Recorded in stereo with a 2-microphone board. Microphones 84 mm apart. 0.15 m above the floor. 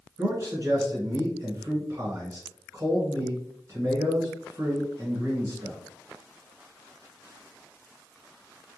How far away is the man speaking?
About 1.4 m.